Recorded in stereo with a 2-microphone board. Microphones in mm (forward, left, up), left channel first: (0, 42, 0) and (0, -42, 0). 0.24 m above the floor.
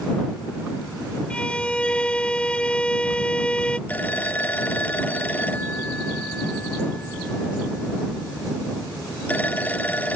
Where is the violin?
15° left (ahead or behind).